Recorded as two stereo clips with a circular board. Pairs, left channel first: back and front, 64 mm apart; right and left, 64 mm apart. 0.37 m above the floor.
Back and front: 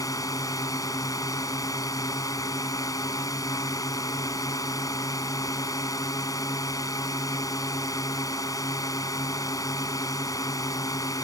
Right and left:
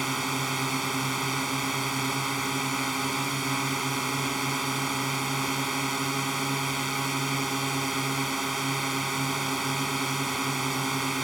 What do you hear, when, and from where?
0.0 s a drone: straight behind